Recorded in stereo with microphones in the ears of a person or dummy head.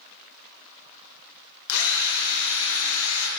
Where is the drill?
70° left (ahead or behind), 1.1 m.